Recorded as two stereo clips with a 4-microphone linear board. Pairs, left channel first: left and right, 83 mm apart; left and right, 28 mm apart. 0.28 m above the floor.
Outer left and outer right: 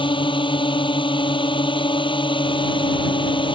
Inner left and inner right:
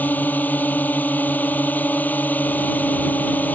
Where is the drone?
80° left.